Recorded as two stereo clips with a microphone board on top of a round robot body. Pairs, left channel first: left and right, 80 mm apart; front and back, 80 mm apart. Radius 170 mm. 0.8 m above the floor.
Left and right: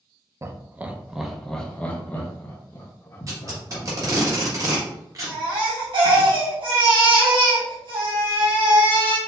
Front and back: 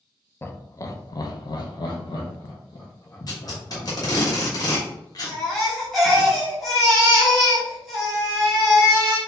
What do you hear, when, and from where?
0.4 s laughter: 50° right, 0.8 m; by 4.2 s 40° left, 2.0 m
3.3 s tape being pulled: 40° right, 1.3 m
5.3 s a baby crying: 85° right, 1.6 m